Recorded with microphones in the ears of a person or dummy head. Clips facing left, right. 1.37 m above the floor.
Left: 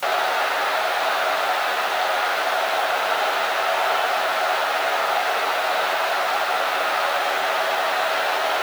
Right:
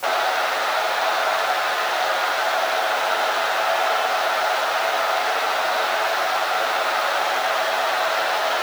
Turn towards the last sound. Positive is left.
No sound to turn to.